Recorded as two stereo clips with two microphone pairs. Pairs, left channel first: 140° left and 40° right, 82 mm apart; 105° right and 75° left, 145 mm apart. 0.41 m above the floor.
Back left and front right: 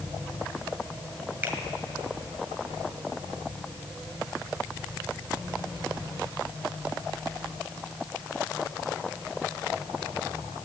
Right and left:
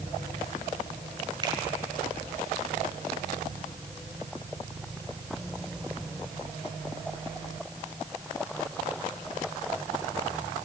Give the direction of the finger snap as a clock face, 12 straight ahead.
11 o'clock.